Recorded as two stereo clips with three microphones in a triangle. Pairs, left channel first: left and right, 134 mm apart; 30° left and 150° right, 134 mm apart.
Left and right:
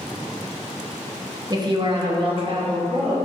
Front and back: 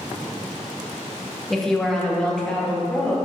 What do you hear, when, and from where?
1.5 s a woman speaking: 60° right, 0.6 m; by 3.2 s 50° right, 1.3 m